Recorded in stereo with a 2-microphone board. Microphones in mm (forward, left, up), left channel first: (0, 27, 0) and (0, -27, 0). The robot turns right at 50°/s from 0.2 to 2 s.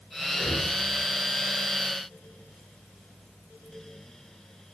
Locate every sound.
0.3 s breathing: 5° right (ahead or behind), 7 m; by 0.7 s 15° left (ahead or behind), 7 m